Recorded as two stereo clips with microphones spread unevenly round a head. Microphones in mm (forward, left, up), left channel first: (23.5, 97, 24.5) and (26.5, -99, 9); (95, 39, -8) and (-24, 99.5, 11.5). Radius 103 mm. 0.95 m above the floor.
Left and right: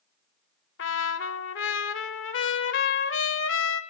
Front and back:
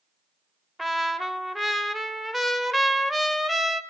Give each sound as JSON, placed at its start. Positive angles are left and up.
{"t": 0.8, "sound": "a trumpet", "azimuth_deg": 65, "distance_m": 1.6}